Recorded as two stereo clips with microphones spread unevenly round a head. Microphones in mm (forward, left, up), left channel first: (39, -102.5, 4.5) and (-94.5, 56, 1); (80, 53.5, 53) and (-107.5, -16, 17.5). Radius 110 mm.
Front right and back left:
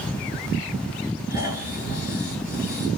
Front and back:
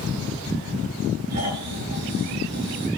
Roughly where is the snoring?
Behind right.